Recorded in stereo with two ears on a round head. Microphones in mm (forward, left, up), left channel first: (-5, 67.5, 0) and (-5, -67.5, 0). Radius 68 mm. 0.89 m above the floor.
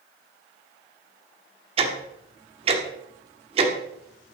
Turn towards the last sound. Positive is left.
turn(degrees=-40)  # may be behind; listen again after turning